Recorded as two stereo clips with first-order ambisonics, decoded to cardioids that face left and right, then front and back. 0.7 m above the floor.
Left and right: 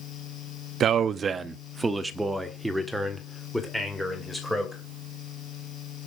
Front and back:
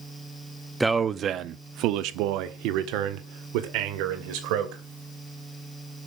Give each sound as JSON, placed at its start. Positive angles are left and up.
{"t": 0.8, "sound": "a man speaking", "azimuth_deg": -105, "distance_m": 0.6}